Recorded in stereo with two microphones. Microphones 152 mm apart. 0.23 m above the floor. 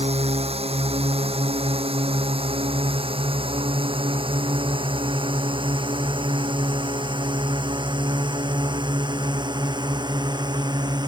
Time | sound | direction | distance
0.0 | a drone | 40° right (ahead or behind) | ?